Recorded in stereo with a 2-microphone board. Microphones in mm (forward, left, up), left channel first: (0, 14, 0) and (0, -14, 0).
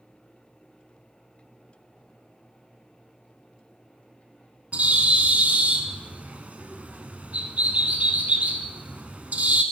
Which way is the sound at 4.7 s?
60° right (ahead or behind).